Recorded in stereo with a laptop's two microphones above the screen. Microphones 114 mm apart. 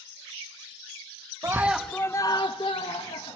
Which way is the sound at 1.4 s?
25° right (ahead or behind).